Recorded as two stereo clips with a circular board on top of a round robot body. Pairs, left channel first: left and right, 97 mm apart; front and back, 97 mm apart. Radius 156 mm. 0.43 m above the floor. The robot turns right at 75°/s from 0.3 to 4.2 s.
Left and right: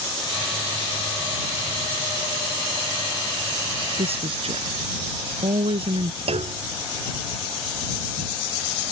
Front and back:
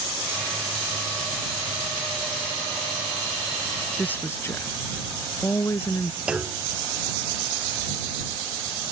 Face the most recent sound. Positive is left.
turn(degrees=-100)